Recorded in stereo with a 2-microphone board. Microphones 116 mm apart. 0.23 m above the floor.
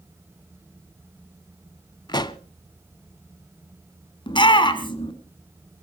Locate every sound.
2.1 s a pop: 35° left (ahead or behind), 0.7 m
4.3 s a shout: 40° left (ahead or behind), 2.5 m